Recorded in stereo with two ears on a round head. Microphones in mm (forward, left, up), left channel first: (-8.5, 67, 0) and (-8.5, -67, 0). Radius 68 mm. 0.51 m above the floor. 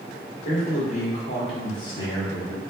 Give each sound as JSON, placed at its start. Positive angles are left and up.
{"t": 0.5, "sound": "a man speaking", "side_deg": 50, "distance_m": 1.4}